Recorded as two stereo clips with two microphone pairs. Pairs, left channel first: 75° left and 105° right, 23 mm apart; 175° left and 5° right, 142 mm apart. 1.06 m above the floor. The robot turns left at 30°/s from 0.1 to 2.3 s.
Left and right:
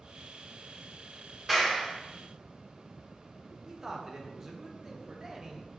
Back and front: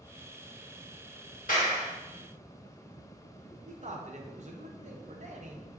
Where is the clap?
Straight behind, 1.0 m; by 1.9 s 165° left, 1.0 m.